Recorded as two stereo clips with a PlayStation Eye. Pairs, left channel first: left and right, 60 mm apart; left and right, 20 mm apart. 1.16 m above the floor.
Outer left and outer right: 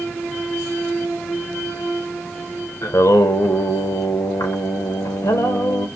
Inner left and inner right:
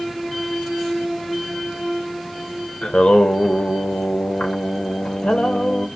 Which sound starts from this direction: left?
Singing, at 2.8 s.